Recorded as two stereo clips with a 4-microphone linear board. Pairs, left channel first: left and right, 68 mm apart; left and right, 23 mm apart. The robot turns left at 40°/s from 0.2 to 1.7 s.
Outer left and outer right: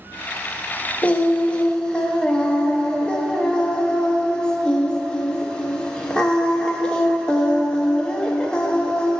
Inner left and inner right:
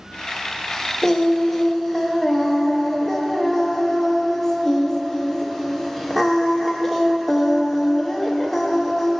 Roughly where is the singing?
Left.